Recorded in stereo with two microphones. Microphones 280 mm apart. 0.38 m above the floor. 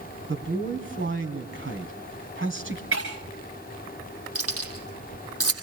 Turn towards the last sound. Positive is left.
turn(degrees=-60)  # may be behind; listen again after turning